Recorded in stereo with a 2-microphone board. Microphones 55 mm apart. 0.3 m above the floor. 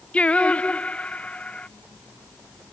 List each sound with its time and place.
0.1 s singing: 20° left (ahead or behind)